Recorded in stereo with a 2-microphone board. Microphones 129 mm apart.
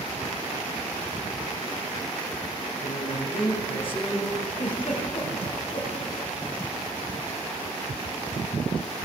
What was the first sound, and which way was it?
A man speaking, 50° left (ahead or behind).